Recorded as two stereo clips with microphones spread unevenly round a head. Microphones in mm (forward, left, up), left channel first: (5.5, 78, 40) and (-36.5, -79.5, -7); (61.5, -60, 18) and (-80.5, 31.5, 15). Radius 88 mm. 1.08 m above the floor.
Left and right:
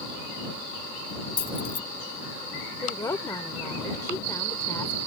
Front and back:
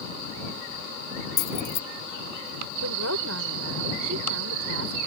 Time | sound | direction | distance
1.4 | keys jangling | 10° left | ?
2.8 | a woman speaking | 145° left | ?